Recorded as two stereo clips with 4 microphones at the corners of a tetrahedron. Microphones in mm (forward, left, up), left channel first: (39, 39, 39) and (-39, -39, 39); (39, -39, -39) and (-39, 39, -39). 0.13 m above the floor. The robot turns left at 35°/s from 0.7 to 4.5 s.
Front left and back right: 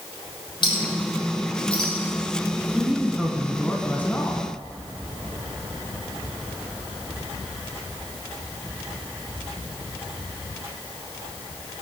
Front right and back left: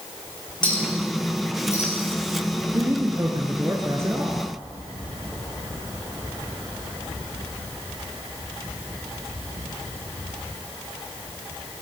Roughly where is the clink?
Ahead.